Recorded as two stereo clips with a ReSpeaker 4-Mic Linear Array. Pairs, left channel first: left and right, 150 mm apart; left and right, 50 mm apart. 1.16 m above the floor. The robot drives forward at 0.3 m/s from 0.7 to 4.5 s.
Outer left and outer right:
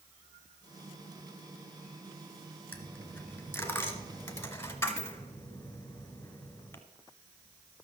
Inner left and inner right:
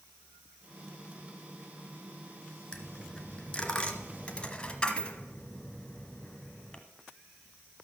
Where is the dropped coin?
15° left (ahead or behind), 1.4 m.